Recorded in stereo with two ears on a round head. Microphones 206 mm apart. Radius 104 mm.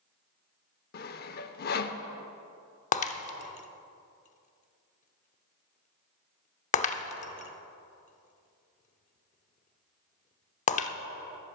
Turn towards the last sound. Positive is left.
turn(degrees=30)  # may be behind; listen again after turning